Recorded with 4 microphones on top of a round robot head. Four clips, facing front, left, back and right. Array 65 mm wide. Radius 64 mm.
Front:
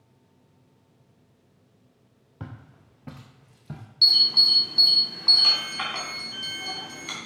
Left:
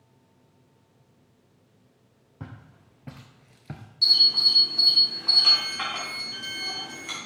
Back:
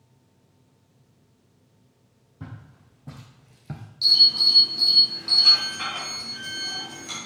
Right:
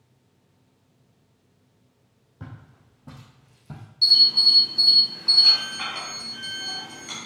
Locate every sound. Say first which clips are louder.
2.4 s footsteps: even, even; 30° left, 1.3 m; by 3.8 s 120° left, 0.8 m
4.0 s an alarm: right 2 dB, back 1 dB; 35° left, 3 m